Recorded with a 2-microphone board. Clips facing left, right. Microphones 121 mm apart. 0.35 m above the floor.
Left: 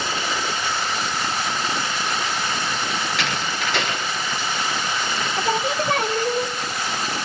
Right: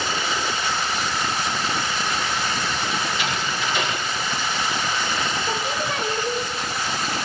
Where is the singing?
60° left (ahead or behind), 0.8 m.